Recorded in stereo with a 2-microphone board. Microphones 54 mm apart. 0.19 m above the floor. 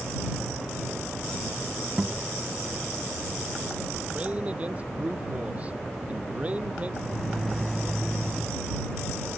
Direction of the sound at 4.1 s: 25° right (ahead or behind).